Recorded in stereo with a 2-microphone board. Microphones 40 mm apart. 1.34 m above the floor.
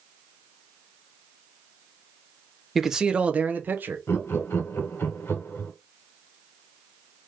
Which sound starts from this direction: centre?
A man speaking, at 2.8 s.